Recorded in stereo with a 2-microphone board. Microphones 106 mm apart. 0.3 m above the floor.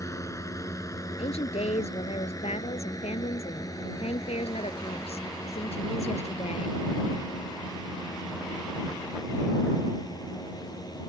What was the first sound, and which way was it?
A drone, 30° left (ahead or behind).